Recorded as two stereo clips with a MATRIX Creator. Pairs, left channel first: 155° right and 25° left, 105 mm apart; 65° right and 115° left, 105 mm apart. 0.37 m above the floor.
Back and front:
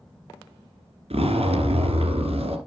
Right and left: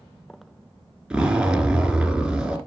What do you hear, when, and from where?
1.1 s a zipper: 30° left, 1.5 m